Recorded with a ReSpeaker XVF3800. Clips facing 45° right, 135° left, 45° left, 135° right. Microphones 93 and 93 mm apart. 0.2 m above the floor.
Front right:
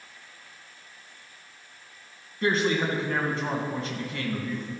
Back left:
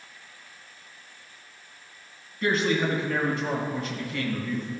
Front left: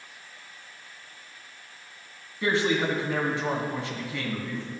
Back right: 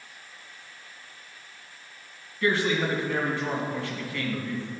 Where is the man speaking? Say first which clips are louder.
Even, even; 15° right, 2 m.